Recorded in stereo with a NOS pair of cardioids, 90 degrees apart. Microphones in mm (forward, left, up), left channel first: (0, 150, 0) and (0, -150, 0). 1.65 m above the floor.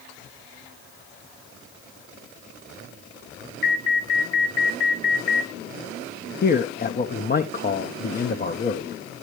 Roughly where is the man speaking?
Ahead left.